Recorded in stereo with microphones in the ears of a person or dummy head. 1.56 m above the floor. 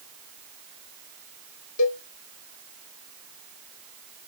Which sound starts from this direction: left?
A cowbell, at 1.8 s.